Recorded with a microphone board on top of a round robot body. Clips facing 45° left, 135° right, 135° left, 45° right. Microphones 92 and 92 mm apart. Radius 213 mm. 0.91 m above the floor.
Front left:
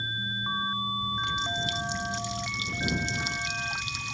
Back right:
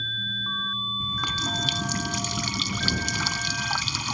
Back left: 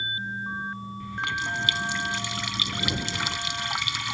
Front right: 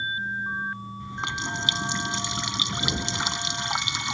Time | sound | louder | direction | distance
1.0 | a running tap | even, back left 2 dB | 115° right | ?